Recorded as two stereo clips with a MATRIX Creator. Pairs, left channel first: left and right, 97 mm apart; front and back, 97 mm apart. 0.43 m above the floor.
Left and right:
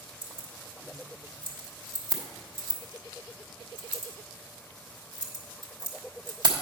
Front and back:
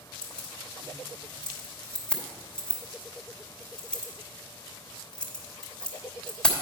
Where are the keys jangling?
80° right, 1.1 m.